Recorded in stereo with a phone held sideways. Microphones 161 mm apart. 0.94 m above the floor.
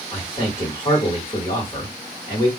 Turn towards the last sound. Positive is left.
turn(degrees=30)  # may be behind; listen again after turning